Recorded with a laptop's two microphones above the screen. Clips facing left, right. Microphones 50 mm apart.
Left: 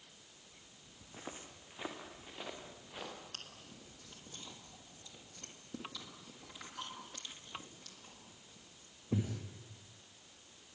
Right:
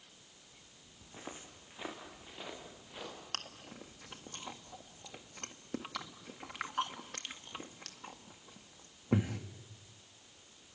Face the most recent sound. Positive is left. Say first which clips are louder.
# right 7 dB
turn(degrees=-65)  # may be behind; listen again after turning